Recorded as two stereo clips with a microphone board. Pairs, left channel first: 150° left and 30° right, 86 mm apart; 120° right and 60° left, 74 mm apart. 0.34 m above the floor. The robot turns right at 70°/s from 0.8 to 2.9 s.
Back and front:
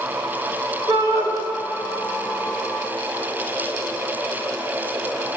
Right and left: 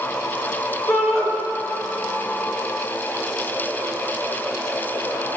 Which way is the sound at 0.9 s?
65° right.